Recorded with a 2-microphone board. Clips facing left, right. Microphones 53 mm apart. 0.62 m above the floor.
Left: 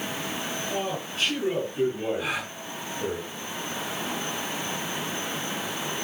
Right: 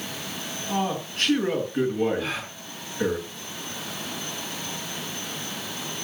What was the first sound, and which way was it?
A man speaking, 55° right (ahead or behind).